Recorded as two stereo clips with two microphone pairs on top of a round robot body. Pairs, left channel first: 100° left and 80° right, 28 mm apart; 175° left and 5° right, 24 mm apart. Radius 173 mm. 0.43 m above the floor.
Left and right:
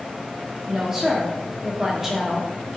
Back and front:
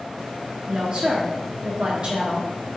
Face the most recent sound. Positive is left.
turn(degrees=-5)